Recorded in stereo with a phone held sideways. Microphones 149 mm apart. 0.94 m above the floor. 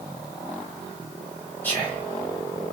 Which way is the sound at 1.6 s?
10° left (ahead or behind).